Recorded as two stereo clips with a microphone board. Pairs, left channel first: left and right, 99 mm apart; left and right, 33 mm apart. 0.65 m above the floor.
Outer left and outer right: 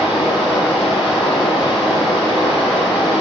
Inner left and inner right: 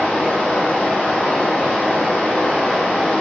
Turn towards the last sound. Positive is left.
turn(degrees=50)  # may be behind; listen again after turning